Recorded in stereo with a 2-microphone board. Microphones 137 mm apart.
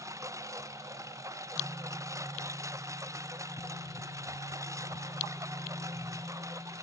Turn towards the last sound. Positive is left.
turn(degrees=-20)  # may be behind; listen again after turning